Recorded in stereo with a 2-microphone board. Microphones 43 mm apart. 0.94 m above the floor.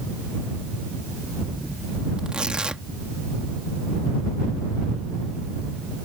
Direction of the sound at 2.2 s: 25° right (ahead or behind).